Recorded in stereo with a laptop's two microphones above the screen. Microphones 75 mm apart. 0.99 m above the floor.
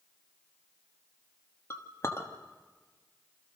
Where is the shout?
No shout in this recording.